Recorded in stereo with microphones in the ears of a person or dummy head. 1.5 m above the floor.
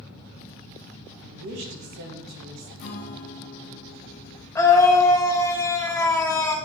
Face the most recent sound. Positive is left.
turn(degrees=15)  # may be behind; listen again after turning